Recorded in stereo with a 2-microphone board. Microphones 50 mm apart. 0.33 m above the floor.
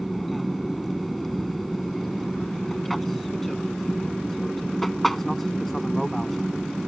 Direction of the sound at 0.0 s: 5° left (ahead or behind).